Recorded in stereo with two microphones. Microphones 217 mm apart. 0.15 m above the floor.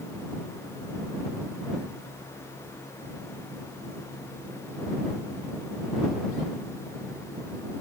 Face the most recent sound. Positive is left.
No sound to turn to.